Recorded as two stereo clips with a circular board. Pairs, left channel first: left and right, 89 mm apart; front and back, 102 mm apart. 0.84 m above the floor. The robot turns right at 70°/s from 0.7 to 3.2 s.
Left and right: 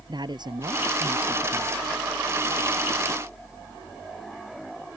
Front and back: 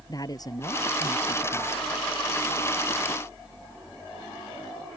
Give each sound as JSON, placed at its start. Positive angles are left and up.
{"t": 0.1, "sound": "a woman speaking", "azimuth_deg": -55}